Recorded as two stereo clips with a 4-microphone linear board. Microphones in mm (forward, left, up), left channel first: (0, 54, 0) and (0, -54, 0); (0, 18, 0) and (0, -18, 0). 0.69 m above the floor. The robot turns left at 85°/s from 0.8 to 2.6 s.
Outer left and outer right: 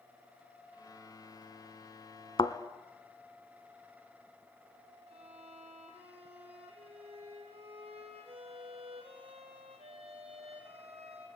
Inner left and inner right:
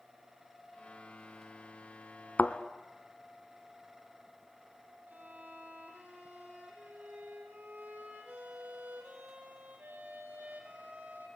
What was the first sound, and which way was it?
A thud, 50° left (ahead or behind).